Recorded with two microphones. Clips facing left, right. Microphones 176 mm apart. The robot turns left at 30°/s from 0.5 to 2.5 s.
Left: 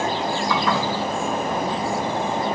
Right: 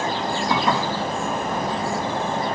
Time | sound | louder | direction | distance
0.5 | dishes clattering | right 2 dB | 25° right (ahead or behind) | 3.5 m